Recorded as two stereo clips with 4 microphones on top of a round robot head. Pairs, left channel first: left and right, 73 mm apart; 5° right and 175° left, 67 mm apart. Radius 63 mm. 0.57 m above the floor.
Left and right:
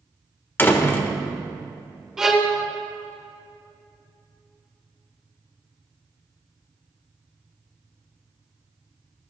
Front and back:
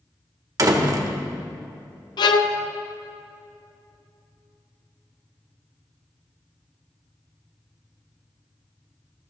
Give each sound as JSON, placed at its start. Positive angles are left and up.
{"t": 0.6, "sound": "a door slam", "azimuth_deg": 150, "distance_m": 1.4}
{"t": 2.2, "sound": "a violin", "azimuth_deg": -5, "distance_m": 0.8}